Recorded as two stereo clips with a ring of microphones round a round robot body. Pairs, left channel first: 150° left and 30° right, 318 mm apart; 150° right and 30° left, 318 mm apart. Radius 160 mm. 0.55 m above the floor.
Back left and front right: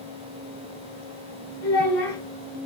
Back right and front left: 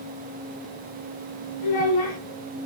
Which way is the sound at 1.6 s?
150° right.